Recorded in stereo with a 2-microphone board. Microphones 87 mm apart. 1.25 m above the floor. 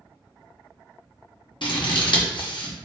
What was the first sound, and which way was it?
Scissors, 65° left (ahead or behind).